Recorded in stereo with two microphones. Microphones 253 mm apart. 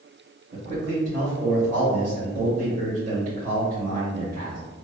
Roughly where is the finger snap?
I don't hear a finger snap.